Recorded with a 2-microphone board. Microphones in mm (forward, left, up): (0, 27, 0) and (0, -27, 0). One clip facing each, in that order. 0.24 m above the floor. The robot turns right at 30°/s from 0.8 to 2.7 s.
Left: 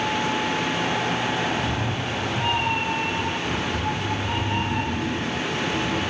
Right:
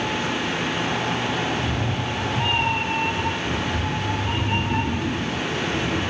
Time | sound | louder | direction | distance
1.5 | a cat meowing | even | 145° right | 1.0 m